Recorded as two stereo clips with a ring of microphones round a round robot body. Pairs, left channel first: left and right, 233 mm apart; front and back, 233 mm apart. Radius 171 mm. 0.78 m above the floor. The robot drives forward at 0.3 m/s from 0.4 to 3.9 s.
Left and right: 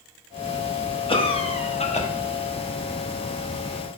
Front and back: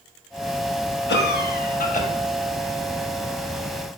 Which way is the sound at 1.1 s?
25° left.